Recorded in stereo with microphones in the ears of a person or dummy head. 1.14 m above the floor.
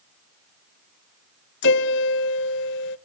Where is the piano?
55° left (ahead or behind), 0.8 m.